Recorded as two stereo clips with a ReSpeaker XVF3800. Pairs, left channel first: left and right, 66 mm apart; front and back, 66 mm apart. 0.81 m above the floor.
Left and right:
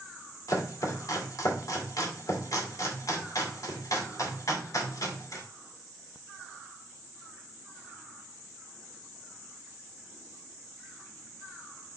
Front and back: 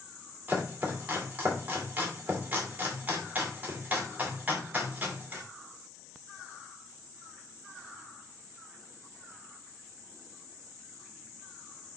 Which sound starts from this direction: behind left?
Chopping, at 0.5 s.